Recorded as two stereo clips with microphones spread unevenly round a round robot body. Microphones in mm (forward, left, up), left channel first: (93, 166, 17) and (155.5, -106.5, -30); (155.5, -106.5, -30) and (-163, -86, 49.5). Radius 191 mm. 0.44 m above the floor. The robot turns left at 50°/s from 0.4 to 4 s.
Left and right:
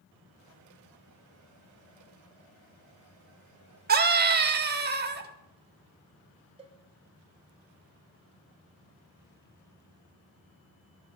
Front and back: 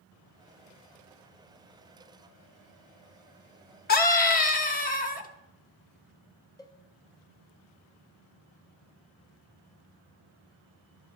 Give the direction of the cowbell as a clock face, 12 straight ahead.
2 o'clock.